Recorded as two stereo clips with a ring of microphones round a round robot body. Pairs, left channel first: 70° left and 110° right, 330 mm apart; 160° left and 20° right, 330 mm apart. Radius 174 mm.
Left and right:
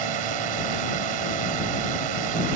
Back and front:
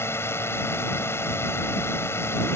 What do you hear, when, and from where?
0.0 s a drone: 120° right